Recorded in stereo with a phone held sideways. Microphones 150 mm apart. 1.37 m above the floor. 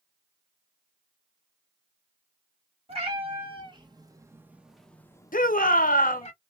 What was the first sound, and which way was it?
A cat meowing, 40° right (ahead or behind).